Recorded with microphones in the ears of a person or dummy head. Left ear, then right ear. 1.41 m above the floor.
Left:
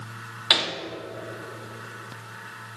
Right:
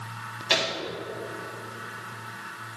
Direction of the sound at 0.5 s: 35° left (ahead or behind).